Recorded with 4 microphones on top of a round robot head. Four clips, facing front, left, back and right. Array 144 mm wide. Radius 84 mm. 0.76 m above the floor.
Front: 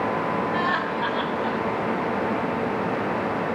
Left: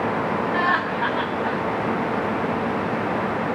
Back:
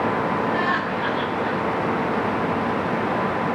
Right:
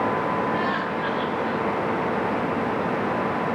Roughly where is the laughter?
Left.